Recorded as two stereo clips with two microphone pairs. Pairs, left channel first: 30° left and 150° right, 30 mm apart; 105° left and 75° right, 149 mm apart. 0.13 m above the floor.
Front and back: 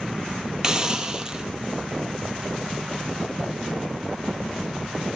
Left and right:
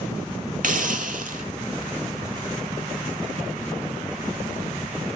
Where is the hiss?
90° right, 0.7 m.